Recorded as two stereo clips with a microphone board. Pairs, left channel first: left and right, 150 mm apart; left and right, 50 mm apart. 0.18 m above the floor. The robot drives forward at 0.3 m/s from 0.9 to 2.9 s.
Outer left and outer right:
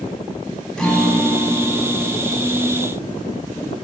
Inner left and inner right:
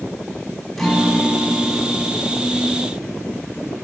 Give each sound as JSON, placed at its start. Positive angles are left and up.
{"t": 0.8, "sound": "a guitar", "side_deg": 5, "distance_m": 0.8}